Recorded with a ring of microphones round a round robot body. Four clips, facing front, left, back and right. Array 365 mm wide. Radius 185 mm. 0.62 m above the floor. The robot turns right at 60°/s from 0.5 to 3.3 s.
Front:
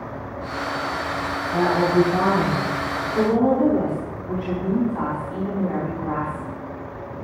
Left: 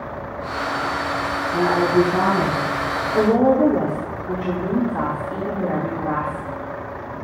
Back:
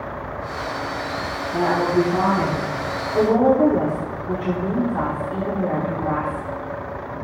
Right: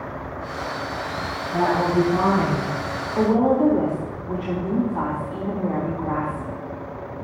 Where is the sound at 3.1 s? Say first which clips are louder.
Left 2 dB, back 3 dB; 105° left, 1.8 m; by 6.5 s 115° left, 1.8 m.